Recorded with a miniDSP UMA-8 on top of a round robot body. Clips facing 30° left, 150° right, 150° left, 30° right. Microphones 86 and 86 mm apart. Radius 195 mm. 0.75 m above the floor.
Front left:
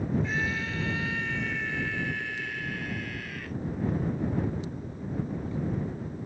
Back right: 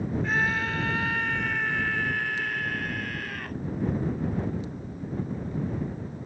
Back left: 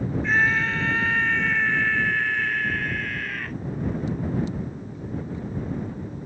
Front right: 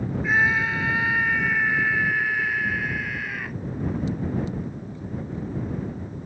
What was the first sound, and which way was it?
A scream, 110° right.